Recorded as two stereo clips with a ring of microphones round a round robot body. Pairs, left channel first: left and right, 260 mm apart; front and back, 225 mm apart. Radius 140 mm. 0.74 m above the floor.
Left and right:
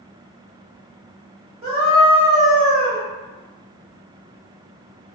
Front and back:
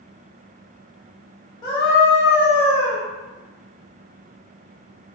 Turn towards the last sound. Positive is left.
turn(degrees=-50)